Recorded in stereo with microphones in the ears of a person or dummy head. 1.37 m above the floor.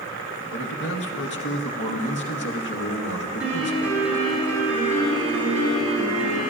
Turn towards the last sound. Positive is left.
turn(degrees=-5)  # may be behind; listen again after turning